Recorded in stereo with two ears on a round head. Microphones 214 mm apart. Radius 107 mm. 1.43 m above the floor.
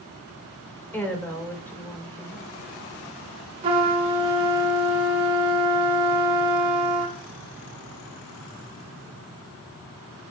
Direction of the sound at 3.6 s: 25° right (ahead or behind).